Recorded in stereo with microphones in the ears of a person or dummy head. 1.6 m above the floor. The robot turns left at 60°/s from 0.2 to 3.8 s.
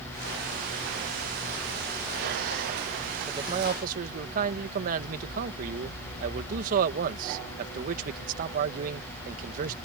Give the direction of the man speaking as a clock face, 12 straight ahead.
1 o'clock.